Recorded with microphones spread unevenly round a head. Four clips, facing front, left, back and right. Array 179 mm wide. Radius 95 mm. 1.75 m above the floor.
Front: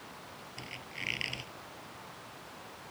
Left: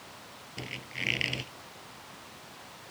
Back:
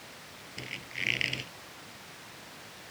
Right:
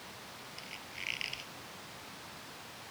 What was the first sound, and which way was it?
A squeak, 110° left.